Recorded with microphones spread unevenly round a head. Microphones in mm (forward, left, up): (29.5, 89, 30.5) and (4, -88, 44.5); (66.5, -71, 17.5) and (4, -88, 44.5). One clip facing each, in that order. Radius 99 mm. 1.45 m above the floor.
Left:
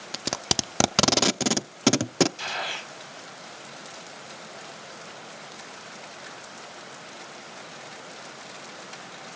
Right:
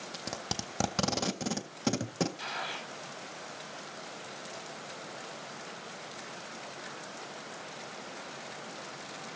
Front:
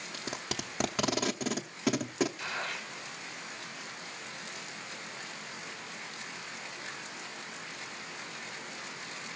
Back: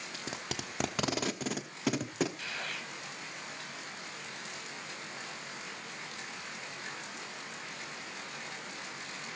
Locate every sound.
0.1 s tape being pulled: 105° left, 0.5 m
2.4 s a gunshot: 70° left, 0.8 m